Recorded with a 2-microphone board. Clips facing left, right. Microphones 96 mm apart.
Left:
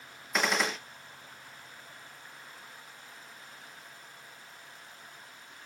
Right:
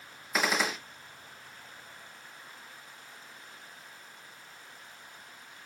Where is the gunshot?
Centre (ahead or behind), 0.7 m.